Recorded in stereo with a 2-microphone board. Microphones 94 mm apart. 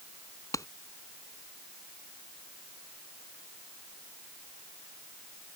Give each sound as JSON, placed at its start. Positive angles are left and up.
{"t": 0.5, "sound": "a clap", "side_deg": 35}